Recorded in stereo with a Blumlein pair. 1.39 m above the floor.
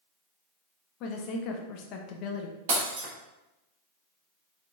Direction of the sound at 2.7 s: 50° right.